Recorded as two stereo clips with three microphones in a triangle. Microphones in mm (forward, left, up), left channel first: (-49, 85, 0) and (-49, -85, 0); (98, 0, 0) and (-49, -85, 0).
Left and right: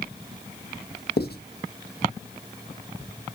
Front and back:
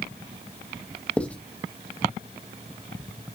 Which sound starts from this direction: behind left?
Writing, at 1.2 s.